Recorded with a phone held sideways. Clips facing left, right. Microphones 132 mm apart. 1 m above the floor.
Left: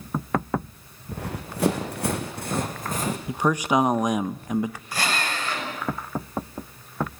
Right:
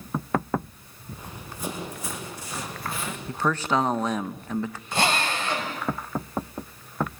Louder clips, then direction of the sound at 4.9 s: Right 6 dB; 25° right (ahead or behind).